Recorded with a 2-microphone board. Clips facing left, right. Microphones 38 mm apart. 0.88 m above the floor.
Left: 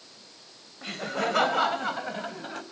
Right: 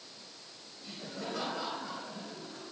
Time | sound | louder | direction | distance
0.8 | laughter | left 12 dB | 85° left | 3.5 m